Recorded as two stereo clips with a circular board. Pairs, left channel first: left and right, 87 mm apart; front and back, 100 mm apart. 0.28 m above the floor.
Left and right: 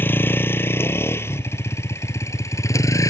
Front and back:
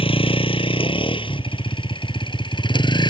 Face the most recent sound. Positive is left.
turn(degrees=40)